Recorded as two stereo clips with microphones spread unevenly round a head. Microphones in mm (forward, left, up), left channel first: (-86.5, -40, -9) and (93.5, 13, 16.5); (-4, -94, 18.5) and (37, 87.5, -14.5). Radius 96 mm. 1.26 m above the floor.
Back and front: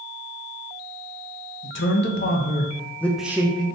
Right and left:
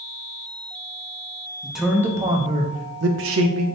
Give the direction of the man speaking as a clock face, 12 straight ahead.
6 o'clock.